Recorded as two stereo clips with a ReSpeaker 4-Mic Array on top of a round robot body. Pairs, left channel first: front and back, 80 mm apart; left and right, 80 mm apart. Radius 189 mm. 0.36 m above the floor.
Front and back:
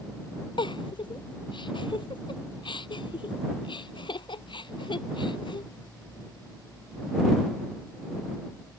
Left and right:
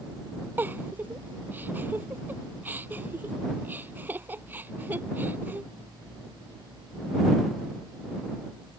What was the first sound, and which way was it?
A giggle, 20° right.